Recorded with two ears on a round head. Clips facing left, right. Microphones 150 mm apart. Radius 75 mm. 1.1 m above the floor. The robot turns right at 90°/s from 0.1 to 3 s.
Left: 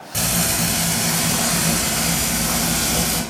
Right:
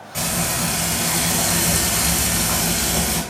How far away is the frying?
About 1.4 m.